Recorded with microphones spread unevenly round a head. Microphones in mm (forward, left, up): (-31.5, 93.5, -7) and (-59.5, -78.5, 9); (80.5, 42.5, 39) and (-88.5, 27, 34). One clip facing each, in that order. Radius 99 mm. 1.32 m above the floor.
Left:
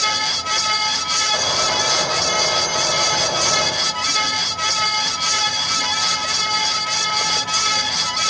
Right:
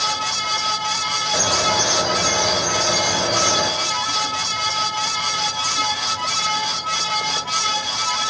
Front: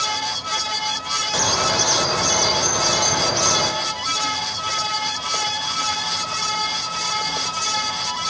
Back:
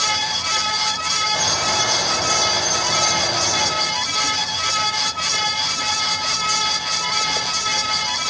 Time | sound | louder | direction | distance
1.3 | a bird | right 2 dB, front 2 dB | 25° right | 4.5 m